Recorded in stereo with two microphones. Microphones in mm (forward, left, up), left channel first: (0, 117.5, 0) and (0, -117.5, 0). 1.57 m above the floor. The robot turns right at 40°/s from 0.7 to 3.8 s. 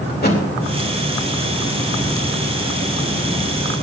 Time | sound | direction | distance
0.1 | a thud | 45° left (ahead or behind) | 2.5 m